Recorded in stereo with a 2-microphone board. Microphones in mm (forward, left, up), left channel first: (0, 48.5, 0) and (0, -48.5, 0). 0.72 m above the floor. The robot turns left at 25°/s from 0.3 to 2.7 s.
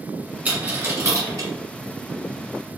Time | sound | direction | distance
0.5 | a dropped coin | 15° right (ahead or behind) | 1.4 m